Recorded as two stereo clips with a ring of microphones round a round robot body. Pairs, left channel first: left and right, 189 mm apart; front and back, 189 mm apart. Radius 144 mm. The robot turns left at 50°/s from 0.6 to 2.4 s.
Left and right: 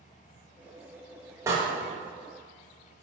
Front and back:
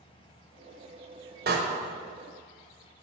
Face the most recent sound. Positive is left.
turn(degrees=150)